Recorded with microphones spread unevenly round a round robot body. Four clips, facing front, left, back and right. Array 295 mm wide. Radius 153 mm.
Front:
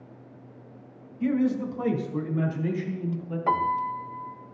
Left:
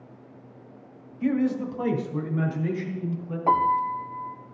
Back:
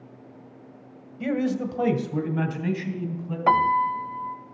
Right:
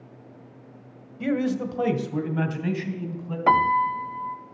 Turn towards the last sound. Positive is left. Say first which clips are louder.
# right 2 dB, back 5 dB
turn(degrees=-110)